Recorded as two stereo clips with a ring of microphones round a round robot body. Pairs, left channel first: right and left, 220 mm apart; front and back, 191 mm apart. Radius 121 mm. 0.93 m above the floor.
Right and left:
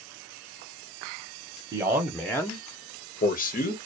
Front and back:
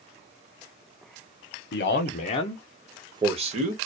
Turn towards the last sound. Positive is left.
turn(degrees=-135)